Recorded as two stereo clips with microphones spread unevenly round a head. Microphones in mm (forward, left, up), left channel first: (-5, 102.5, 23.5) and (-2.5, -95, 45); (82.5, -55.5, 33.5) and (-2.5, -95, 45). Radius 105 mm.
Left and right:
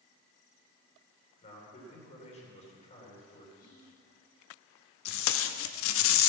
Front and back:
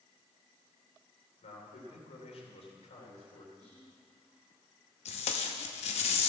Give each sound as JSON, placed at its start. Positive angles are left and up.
{"t": 1.4, "sound": "a man speaking", "azimuth_deg": 30, "distance_m": 3.0}
{"t": 3.6, "sound": "whispering", "azimuth_deg": 140, "distance_m": 4.5}
{"t": 5.0, "sound": "tape being pulled", "azimuth_deg": 65, "distance_m": 0.6}